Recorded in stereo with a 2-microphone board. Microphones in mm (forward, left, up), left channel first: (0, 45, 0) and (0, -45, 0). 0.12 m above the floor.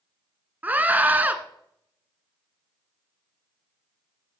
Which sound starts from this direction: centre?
A scream, at 0.6 s.